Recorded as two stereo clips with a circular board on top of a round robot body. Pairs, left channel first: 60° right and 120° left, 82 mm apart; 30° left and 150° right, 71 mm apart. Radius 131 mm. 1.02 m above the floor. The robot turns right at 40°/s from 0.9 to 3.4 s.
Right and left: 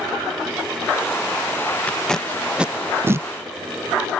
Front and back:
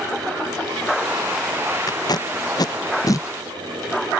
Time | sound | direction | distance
1.9 | tape being pulled | 10° left | ?